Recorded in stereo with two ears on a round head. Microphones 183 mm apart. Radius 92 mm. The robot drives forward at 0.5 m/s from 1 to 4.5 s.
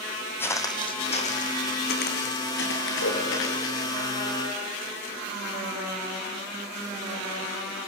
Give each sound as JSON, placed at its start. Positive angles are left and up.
{"t": 0.4, "sound": "footsteps", "side_deg": 10, "distance_m": 2.0}
{"t": 3.0, "sound": "a whoosh", "side_deg": 70, "distance_m": 4.0}